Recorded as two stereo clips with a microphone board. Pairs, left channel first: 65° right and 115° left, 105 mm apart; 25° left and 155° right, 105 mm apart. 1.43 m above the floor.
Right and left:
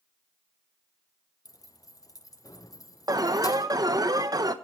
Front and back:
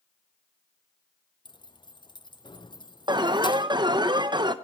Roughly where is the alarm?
Behind.